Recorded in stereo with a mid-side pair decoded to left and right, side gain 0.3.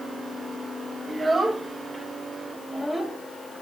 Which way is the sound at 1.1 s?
30° right.